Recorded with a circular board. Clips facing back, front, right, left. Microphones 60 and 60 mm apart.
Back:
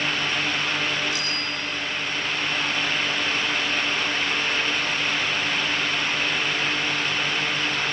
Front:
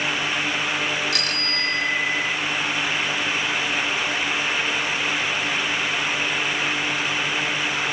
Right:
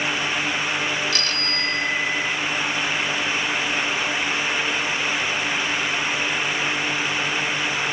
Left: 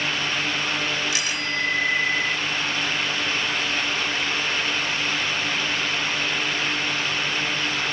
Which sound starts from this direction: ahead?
A bicycle bell, at 1.1 s.